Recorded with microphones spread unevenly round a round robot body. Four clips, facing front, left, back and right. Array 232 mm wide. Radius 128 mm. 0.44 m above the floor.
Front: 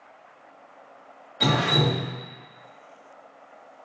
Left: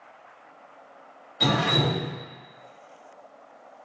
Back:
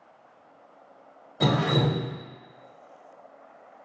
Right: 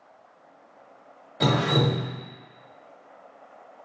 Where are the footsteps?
I don't hear footsteps.